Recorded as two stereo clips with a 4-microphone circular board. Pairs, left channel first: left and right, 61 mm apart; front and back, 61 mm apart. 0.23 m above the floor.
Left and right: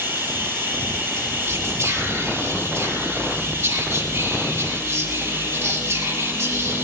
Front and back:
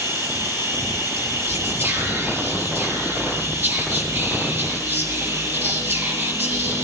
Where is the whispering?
130° right, 4 m.